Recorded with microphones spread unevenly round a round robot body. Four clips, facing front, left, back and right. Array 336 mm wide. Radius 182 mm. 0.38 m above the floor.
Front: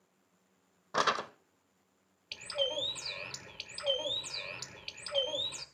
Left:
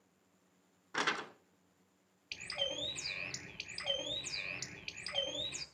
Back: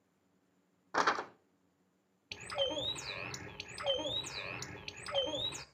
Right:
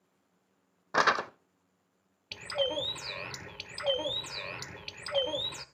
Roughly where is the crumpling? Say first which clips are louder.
Right 11 dB, front 1 dB; ahead right.